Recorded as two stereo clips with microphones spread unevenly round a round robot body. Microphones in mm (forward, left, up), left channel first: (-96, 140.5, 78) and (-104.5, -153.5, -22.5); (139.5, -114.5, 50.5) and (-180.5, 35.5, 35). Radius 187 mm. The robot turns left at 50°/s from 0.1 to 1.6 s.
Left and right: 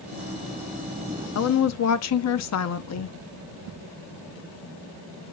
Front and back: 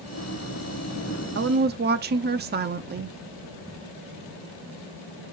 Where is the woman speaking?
130° left, 0.9 m; by 3.2 s 120° left, 0.9 m.